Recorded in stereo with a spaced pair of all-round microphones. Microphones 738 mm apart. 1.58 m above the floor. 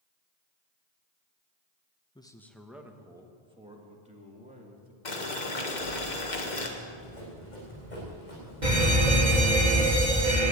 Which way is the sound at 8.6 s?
75° right (ahead or behind).